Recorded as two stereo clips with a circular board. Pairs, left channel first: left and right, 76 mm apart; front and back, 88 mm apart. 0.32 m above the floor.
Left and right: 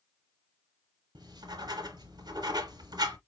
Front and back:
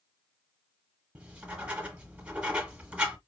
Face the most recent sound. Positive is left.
turn(degrees=-105)